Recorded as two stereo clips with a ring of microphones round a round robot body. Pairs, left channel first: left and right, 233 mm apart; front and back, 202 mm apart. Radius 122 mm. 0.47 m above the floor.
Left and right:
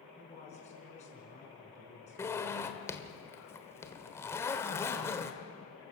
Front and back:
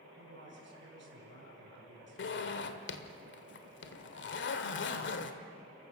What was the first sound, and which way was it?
A man speaking, 150° left.